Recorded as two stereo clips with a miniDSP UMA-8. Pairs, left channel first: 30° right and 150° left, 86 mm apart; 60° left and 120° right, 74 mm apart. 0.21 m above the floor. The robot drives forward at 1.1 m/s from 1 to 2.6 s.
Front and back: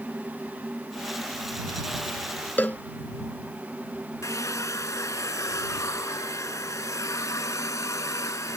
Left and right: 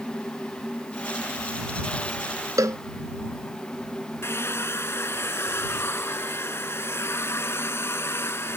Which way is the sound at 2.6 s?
95° right.